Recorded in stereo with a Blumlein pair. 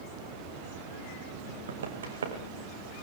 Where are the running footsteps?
65° right, 4.5 m.